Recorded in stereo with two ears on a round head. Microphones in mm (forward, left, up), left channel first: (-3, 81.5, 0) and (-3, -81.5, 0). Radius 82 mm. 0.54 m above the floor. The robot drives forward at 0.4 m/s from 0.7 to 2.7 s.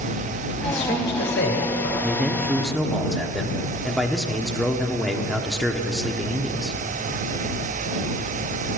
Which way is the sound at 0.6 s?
65° left (ahead or behind).